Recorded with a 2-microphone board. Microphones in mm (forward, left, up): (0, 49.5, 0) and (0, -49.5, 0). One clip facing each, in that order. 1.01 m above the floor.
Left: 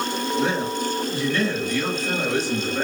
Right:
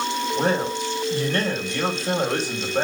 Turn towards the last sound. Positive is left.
turn(degrees=-50)  # may be behind; listen again after turning